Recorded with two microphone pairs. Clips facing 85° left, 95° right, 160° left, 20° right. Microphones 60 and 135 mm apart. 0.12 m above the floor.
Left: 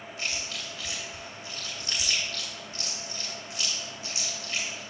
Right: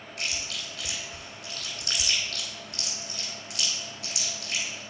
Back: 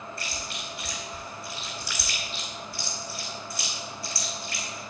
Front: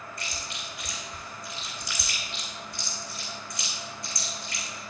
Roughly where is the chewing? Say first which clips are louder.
Right 1 dB, back 2 dB; behind right.